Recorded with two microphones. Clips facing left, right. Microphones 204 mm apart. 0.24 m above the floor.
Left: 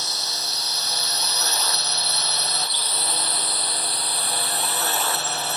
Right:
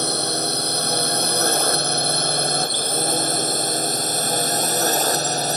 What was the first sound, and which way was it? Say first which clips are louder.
A drone: right 13 dB; 55° right (ahead or behind).